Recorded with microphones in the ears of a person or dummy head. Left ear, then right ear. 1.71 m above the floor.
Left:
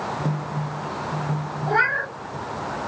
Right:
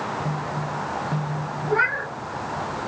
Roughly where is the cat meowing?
Left.